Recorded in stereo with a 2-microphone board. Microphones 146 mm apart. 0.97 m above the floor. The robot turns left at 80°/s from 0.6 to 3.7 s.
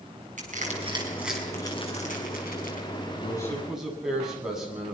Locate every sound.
0.4 s crushing: 60° right (ahead or behind), 5.5 m; by 2.9 s 60° left (ahead or behind), 5.5 m
3.2 s a man speaking: 35° left, 8 m; by 5.0 s 5° right, 8 m